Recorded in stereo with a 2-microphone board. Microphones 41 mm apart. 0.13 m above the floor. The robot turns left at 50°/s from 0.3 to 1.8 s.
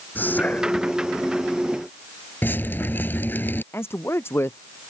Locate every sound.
0.1 s whispering: 45° left; by 1.0 s 15° left
2.4 s dripping: 50° left (ahead or behind)
3.7 s a man speaking: 70° left (ahead or behind)